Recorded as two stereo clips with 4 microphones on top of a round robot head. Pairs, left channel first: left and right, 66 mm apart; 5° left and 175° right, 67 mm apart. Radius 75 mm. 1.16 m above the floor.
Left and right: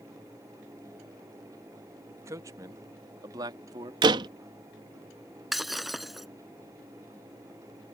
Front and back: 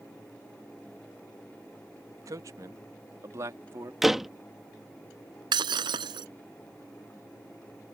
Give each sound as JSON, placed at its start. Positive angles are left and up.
{"t": 2.2, "sound": "a man speaking", "azimuth_deg": -135}
{"t": 4.0, "sound": "a door slam", "azimuth_deg": -90}
{"t": 5.5, "sound": "breaking glass", "azimuth_deg": 180}